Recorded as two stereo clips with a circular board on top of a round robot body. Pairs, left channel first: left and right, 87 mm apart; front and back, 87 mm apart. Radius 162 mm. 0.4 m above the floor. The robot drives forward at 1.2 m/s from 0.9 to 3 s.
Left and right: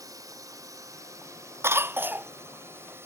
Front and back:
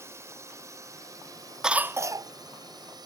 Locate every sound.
0.0 s a drone: 130° right; by 3.1 s 150° right
1.6 s a cough: 105° right; by 2.3 s 155° right